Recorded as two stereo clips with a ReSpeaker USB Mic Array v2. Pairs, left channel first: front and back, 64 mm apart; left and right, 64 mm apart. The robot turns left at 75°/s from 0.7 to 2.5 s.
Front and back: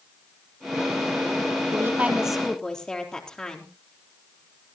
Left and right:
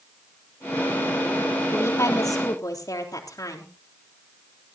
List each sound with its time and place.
1.7 s a woman speaking: 140° left, 3.5 m; by 3.7 s 80° left, 3.5 m